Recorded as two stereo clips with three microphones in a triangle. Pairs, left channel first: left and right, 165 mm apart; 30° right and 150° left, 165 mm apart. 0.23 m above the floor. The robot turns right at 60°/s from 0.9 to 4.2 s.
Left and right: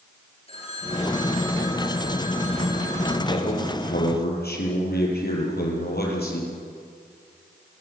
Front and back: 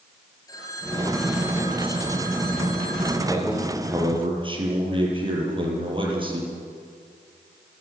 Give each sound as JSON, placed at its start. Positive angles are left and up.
{"t": 0.5, "sound": "a phone ringing", "azimuth_deg": 40, "distance_m": 3.5}
{"t": 3.3, "sound": "a man speaking", "azimuth_deg": 35, "distance_m": 6.5}